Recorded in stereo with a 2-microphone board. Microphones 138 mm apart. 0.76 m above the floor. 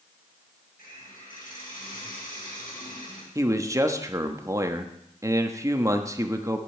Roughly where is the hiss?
Left.